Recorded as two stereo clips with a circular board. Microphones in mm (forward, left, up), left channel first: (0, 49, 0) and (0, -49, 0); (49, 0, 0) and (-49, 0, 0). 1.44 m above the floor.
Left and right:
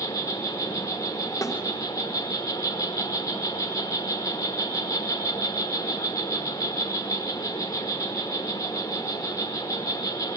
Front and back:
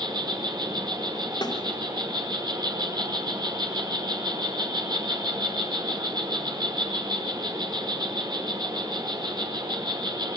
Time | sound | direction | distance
0.0 | an insect | 140° left | 6 m
1.4 | a snare drum | 35° left | 4 m